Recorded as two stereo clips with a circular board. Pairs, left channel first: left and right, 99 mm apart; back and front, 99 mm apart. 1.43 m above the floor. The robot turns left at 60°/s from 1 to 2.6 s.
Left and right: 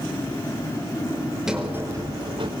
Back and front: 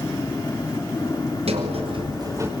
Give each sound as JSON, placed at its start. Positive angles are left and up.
{"t": 1.5, "sound": "a sliding door", "azimuth_deg": -5, "distance_m": 5.0}